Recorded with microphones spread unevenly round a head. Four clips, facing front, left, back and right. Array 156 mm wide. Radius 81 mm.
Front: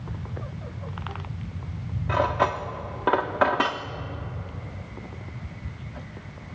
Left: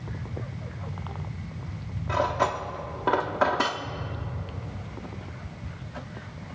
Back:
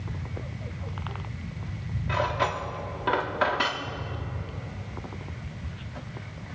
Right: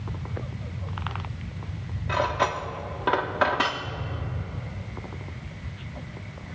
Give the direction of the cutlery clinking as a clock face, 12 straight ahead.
11 o'clock.